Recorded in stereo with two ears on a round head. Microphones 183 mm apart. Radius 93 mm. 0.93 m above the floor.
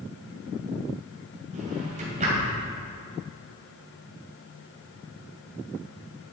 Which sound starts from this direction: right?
A drawer, at 1.5 s.